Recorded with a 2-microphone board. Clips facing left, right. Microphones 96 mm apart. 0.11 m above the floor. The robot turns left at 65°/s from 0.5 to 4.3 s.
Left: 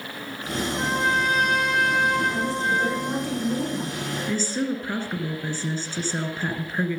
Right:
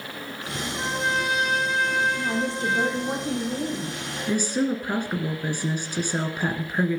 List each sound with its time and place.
0.7 s a trumpet: 170° left, 3 m; by 3.2 s 15° left, 3 m
2.2 s a woman speaking: 90° right, 7 m; by 4.0 s 155° left, 7 m
4.3 s a woman speaking: 15° right (ahead or behind), 1.5 m